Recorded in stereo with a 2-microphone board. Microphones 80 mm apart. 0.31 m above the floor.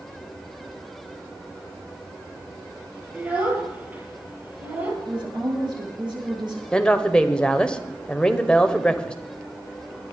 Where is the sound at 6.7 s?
10° left (ahead or behind), 1.2 m.